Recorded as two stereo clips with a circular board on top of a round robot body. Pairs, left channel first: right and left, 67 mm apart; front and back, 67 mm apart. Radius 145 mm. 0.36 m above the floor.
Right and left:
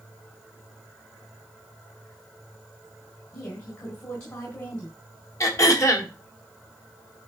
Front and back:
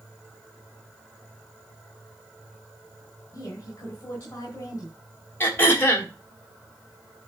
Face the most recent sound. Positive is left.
turn(degrees=-55)